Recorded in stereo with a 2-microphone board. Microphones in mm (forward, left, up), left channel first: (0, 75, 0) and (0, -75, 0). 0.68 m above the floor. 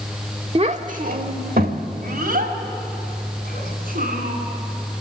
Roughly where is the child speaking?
Right.